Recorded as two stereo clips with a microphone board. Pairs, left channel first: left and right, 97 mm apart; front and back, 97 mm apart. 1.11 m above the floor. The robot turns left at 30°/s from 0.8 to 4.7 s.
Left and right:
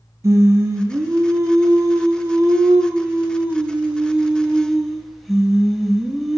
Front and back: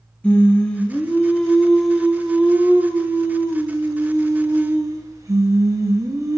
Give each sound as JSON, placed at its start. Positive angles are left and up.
{"t": 0.2, "sound": "singing", "azimuth_deg": -65, "distance_m": 0.8}